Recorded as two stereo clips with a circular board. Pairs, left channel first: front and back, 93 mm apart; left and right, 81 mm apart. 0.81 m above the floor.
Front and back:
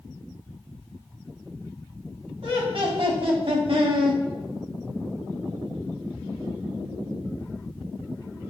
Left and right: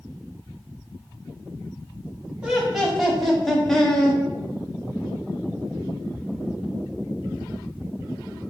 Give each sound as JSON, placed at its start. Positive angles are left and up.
{"t": 2.4, "sound": "laughter", "azimuth_deg": -170, "distance_m": 1.6}